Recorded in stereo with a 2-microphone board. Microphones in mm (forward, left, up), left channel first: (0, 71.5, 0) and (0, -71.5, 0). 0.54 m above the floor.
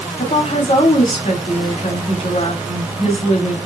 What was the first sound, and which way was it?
A woman speaking, 45° left (ahead or behind).